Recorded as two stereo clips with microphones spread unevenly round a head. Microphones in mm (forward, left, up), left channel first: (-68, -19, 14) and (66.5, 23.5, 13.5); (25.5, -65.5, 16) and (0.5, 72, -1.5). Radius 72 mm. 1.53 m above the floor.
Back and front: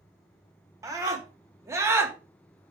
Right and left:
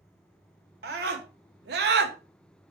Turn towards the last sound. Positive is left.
turn(degrees=90)